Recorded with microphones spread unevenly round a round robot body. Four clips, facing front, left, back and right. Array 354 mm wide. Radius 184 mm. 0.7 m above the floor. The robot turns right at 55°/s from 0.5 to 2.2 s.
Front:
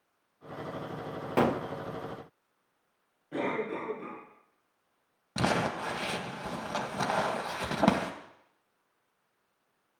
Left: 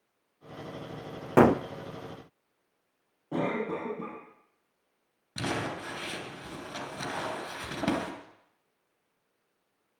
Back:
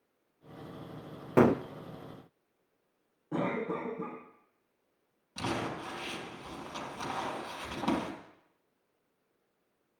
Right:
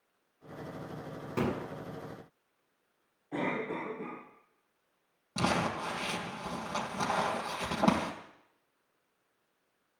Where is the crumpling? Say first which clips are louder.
Right 2 dB, front 6 dB; 15° right, 2.5 m.